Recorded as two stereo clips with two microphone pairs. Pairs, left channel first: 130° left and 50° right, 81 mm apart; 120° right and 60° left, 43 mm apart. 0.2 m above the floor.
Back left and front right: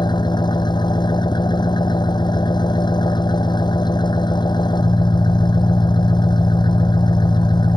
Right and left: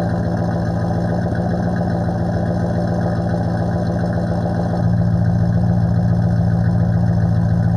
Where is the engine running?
155° left.